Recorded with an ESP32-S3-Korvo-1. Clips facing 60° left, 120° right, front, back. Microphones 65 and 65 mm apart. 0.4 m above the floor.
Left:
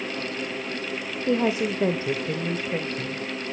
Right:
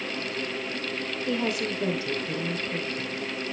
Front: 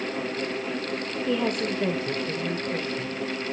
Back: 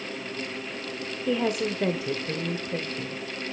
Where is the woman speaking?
95° left, 0.8 m; by 3.2 s 100° left, 1.7 m.